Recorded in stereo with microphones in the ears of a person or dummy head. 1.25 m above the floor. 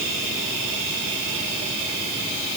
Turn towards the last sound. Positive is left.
No sound to turn to.